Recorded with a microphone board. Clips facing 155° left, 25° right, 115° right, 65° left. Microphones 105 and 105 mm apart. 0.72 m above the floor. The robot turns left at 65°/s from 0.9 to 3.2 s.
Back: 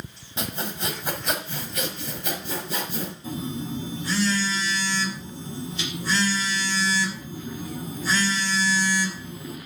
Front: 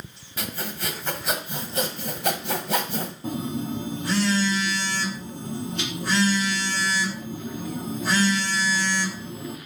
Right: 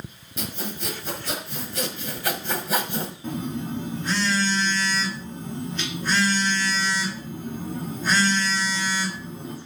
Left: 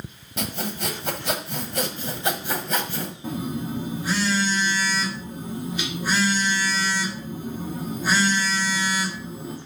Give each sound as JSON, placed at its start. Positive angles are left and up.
{"t": 0.4, "sound": "sawing", "azimuth_deg": 90, "distance_m": 1.4}
{"t": 3.2, "sound": "a phone buzzing", "azimuth_deg": -10, "distance_m": 1.3}